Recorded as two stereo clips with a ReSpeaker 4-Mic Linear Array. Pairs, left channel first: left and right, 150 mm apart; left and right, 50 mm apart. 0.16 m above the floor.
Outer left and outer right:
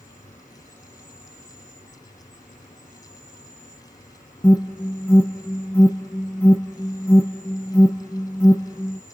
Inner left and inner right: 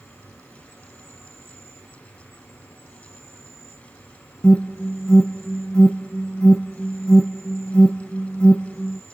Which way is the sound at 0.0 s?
55° left (ahead or behind).